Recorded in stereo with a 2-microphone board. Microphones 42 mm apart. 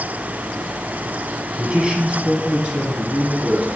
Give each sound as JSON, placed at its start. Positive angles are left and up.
{"t": 1.6, "sound": "a man speaking", "side_deg": -20, "distance_m": 2.0}